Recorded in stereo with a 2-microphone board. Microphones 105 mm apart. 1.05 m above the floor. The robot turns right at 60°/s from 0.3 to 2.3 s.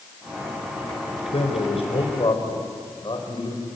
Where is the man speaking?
75° left, 4.5 m; by 3.7 s 130° left, 4.5 m.